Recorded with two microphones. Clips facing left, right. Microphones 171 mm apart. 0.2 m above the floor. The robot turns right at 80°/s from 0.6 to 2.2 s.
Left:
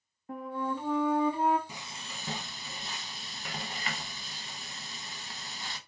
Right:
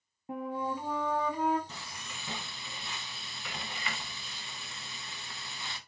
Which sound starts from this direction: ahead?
Frying, at 1.7 s.